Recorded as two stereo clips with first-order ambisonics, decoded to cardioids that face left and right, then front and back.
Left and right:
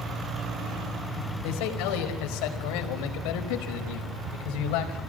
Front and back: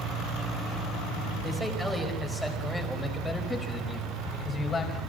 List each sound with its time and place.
1.4 s a man speaking: 100° left, 5 m; by 5.0 s 70° left, 5 m